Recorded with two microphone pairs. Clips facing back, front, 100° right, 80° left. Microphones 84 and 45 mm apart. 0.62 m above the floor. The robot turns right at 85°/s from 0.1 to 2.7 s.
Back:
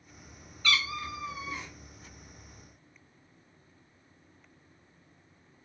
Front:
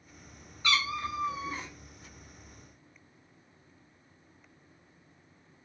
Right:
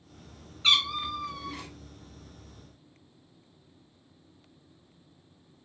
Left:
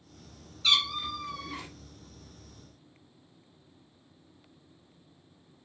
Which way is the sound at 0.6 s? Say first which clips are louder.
Front 1 dB, right 2 dB; 60° right.